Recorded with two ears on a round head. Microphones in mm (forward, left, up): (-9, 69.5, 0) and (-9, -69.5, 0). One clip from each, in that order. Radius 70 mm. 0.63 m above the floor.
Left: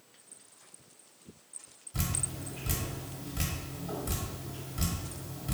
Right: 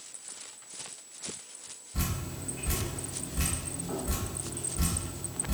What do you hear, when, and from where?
1.9 s dripping: 60° left (ahead or behind), 1.5 m